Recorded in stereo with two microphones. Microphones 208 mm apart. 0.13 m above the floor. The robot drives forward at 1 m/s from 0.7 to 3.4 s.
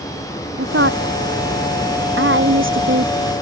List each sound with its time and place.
0.6 s a woman speaking: 75° right (ahead or behind); by 3.4 s 70° right (ahead or behind)